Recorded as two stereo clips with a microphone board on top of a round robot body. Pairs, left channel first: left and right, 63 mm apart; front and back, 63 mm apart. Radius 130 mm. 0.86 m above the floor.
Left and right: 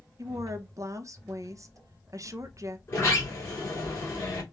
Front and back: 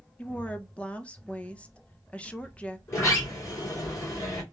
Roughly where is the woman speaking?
Right.